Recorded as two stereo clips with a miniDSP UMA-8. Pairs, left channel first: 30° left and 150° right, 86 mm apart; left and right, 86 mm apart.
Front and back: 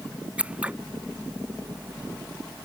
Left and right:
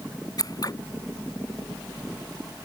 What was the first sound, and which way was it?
Scissors, 135° left.